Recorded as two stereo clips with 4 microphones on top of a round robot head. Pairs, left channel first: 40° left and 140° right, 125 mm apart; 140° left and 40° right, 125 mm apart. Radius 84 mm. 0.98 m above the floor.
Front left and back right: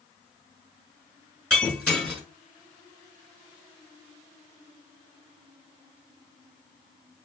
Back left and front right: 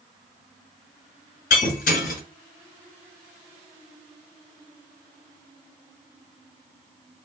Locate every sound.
1.5 s breaking glass: 125° left, 1.5 m